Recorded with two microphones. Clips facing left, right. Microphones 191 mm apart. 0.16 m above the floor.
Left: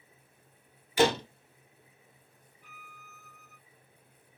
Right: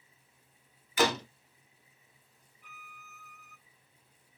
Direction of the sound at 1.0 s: 30° left (ahead or behind).